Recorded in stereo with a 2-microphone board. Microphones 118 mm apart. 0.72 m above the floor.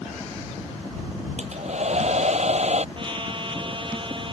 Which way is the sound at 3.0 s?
40° right (ahead or behind).